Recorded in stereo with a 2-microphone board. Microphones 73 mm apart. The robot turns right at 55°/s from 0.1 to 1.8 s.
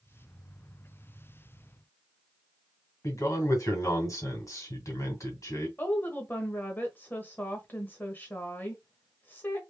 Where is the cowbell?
I don't hear a cowbell.